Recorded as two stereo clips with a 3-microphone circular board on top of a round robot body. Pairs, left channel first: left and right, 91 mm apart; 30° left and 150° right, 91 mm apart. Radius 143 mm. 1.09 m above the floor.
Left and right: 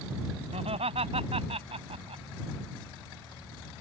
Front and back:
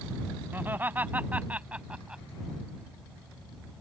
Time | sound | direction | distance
0.5 | laughter | 80° right | ?